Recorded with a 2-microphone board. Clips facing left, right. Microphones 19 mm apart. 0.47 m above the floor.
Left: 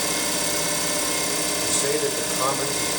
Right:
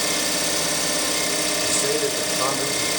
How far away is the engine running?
About 1.3 m.